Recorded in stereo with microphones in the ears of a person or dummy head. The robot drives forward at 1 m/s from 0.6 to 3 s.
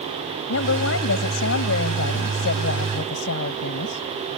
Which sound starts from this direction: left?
A woman speaking, at 0.5 s.